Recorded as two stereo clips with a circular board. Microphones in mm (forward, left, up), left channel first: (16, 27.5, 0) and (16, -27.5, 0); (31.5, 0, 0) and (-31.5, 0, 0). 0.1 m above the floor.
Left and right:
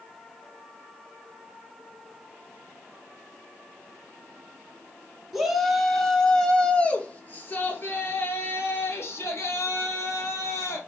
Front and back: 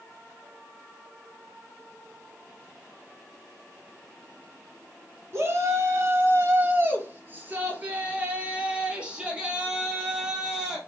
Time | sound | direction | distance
5.3 | a shout | 175° right | 2 m